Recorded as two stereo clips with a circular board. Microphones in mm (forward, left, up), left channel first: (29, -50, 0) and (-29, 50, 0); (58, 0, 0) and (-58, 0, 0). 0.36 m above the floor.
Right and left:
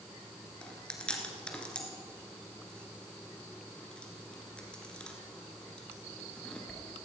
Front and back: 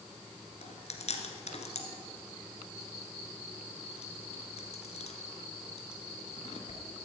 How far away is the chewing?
About 1.8 m.